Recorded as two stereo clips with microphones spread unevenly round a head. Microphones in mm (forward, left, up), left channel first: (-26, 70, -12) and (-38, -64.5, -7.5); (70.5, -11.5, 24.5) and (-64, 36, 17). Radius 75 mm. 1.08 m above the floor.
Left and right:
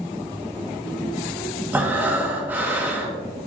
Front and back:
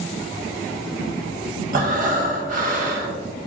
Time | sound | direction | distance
1.7 | breathing | 170° right | 1.2 m